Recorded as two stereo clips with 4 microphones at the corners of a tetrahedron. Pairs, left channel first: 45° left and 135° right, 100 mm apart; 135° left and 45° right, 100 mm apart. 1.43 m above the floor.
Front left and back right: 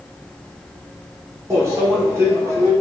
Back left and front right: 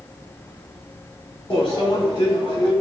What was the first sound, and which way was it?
A microwave, 165° left.